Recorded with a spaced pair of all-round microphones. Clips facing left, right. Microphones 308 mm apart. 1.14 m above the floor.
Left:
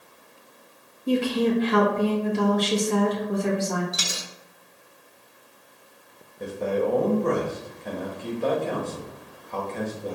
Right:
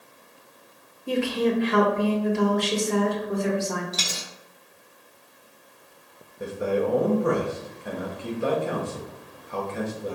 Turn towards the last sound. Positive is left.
turn(degrees=-10)  # may be behind; listen again after turning